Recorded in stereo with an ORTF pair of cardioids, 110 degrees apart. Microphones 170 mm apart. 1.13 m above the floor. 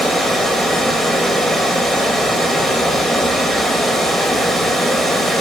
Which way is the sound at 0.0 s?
Straight ahead.